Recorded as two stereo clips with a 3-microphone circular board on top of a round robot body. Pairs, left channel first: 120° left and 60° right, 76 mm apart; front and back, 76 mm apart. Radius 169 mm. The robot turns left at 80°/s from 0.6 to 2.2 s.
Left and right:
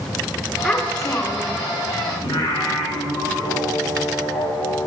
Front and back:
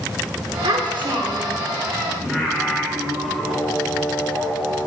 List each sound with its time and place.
0.6 s a child speaking: 155° right, 1.6 m; by 1.6 s 130° left, 1.6 m
2.2 s singing: 95° left, 2.5 m